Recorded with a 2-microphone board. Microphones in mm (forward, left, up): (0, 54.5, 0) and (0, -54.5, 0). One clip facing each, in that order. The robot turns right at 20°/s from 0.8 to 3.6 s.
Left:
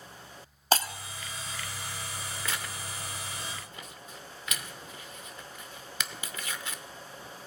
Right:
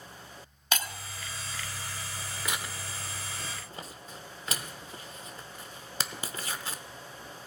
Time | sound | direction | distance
0.7 | breaking glass | 35° left (ahead or behind) | 0.5 m
2.5 | tearing paper | 15° right (ahead or behind) | 0.6 m